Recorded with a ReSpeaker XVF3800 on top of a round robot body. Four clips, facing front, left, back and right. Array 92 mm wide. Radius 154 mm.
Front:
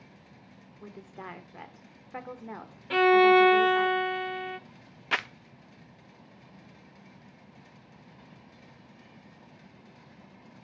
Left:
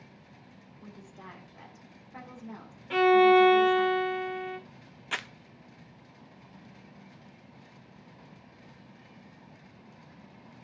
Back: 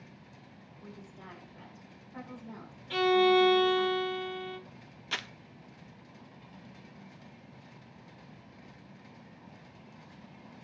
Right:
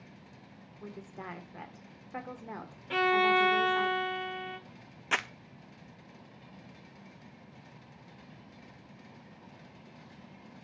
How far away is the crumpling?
About 0.6 m.